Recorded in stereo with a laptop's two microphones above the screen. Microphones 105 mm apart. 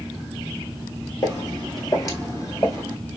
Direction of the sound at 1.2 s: 35° left (ahead or behind).